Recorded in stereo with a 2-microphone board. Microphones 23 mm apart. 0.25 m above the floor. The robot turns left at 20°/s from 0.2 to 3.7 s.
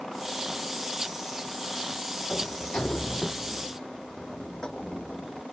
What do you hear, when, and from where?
2.3 s a sliding door: 60° left (ahead or behind); by 5.4 s 30° left (ahead or behind)